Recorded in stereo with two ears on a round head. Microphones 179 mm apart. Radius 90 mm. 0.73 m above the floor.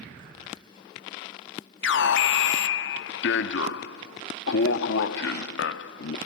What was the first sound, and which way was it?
An alarm, 65° left (ahead or behind).